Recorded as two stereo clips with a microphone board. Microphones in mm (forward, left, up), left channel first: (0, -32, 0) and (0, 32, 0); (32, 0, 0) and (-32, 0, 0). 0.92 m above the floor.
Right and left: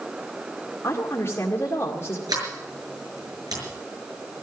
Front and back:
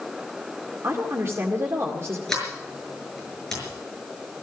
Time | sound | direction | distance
0.8 | a woman speaking | 135° right | 1.9 m
2.3 | a sliding door | 80° left | 6 m